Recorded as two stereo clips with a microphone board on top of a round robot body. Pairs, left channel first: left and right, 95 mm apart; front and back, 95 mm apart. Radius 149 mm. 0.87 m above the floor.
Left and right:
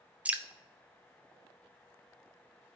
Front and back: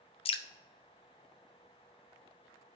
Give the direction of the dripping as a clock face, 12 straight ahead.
12 o'clock.